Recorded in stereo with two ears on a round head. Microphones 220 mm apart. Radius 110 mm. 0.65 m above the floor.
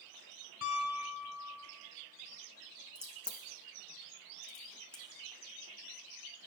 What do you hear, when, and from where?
0.6 s a piano: 55° left (ahead or behind), 2.5 m
3.0 s a crack: 5° left (ahead or behind), 1.6 m